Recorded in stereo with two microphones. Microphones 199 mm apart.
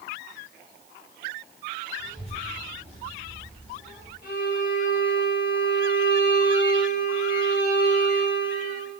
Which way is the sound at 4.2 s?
45° left (ahead or behind).